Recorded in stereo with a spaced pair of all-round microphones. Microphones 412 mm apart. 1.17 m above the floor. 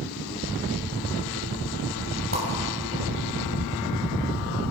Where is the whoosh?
30° right (ahead or behind), 5.5 m.